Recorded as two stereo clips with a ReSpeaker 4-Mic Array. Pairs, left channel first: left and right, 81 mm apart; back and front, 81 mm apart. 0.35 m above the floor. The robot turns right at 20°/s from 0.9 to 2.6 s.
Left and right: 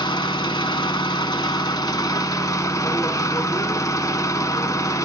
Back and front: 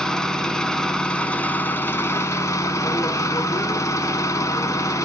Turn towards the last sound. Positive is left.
turn(degrees=135)